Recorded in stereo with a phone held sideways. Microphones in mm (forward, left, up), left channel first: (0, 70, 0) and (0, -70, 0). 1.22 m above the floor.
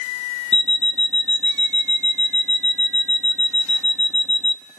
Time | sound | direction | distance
0.5 | an alarm clock | 45° left (ahead or behind) | 1.0 m